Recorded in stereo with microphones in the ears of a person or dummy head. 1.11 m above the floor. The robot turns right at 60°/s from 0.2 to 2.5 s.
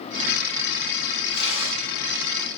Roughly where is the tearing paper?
Ahead left.